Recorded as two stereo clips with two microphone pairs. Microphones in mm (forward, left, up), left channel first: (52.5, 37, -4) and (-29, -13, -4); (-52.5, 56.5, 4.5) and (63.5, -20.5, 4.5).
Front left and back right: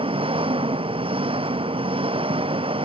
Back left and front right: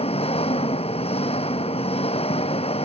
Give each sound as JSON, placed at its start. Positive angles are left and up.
{"t": 0.0, "sound": "an engine running", "azimuth_deg": -170}